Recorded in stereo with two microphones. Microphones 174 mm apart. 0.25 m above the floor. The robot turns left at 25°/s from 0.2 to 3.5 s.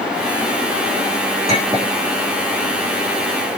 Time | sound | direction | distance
1.5 | a clink | 35° right (ahead or behind) | 7 m